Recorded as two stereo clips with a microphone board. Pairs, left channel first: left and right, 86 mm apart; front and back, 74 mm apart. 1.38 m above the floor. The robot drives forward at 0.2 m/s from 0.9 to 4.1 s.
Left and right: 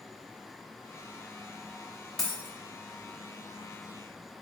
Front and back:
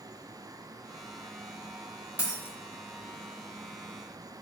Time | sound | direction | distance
2.2 | a dropped coin | 165° left | 1.0 m